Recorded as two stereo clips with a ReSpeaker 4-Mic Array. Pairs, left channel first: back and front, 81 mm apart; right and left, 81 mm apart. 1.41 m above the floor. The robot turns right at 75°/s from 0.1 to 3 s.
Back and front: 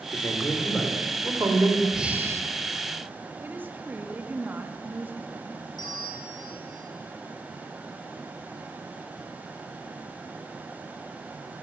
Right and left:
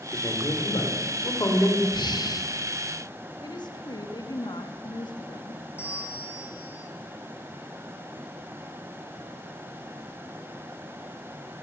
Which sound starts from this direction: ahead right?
A woman speaking, at 3.4 s.